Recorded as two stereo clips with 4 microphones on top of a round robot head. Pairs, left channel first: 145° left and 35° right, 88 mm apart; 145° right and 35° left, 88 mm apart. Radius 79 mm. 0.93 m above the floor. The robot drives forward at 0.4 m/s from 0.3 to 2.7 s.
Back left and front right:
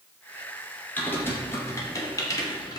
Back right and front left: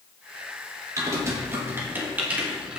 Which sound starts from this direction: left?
Typing on a keyboard, at 1.0 s.